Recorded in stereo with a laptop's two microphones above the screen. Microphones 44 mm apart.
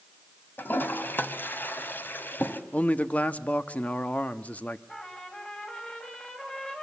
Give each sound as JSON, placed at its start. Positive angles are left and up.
{"t": 0.6, "sound": "a toilet flushing", "side_deg": 50, "distance_m": 1.6}
{"t": 2.7, "sound": "a man speaking", "side_deg": 35, "distance_m": 1.4}
{"t": 4.9, "sound": "a trumpet", "side_deg": 25, "distance_m": 3.0}